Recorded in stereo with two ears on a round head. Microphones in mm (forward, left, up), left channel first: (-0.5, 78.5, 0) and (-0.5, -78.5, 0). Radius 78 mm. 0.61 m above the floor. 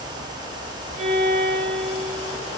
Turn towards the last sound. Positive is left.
turn(degrees=-40)  # may be behind; listen again after turning